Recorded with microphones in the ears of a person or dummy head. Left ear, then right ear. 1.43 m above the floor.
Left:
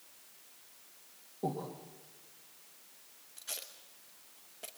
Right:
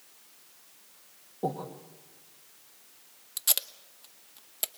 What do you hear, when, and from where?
1.4 s breathing: 30° right (ahead or behind), 3 m
3.4 s tape being pulled: 55° right (ahead or behind), 0.9 m